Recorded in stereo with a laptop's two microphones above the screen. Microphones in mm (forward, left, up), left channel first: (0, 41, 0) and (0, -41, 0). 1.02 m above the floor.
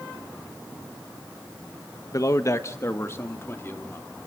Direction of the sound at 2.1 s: 45° left (ahead or behind).